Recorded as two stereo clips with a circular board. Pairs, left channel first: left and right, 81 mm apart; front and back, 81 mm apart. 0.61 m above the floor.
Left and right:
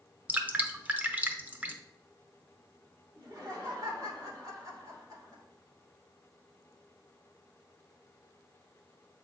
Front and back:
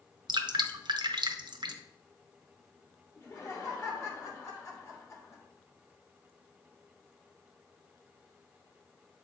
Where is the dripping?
160° right, 0.7 m.